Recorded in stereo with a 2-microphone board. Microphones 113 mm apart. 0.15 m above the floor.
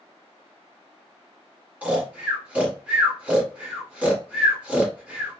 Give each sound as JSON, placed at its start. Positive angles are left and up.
{"t": 1.8, "sound": "snoring", "side_deg": -15, "distance_m": 1.5}